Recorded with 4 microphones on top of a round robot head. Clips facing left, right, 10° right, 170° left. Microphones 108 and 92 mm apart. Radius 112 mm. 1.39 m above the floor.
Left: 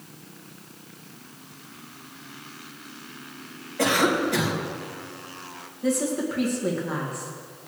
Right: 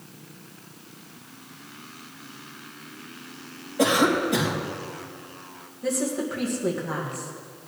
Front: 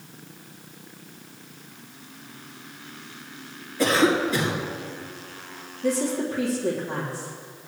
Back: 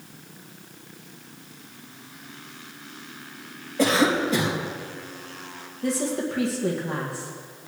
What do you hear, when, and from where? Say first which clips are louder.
3.8 s a cough: right 1 dB, even; 160° right, 3 m
5.8 s a woman speaking: left 2 dB, front 2 dB; straight behind, 2.0 m